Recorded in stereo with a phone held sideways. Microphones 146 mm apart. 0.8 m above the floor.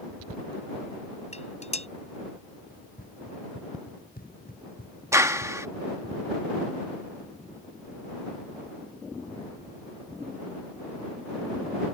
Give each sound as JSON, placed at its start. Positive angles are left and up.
{"t": 1.3, "sound": "dishes clattering", "side_deg": 50}
{"t": 2.7, "sound": "running footsteps", "side_deg": 85}
{"t": 5.1, "sound": "a clap", "side_deg": -20}